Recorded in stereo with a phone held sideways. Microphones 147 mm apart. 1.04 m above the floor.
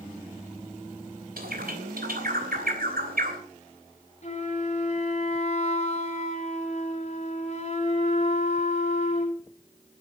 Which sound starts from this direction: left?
A flute, at 4.2 s.